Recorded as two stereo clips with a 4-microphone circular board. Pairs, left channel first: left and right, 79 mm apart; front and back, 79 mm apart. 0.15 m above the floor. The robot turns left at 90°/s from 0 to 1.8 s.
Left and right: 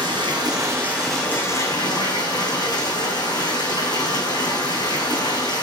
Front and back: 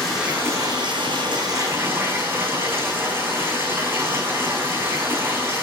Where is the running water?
80° right, 5 m; by 5.6 s 115° left, 5 m.